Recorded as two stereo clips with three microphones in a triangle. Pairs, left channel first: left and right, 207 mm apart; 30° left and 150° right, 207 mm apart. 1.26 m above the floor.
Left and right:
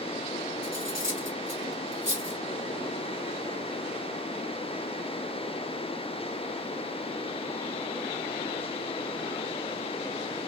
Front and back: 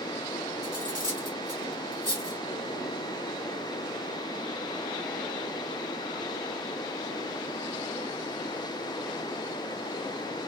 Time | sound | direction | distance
0.6 | cutlery clinking | 95° right | 3.5 m